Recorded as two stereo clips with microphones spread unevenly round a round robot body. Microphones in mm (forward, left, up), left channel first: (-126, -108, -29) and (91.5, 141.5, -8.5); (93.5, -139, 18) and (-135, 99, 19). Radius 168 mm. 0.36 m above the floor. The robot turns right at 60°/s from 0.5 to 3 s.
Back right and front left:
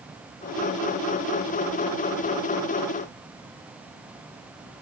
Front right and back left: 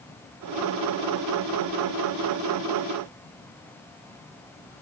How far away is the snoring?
I don't hear snoring.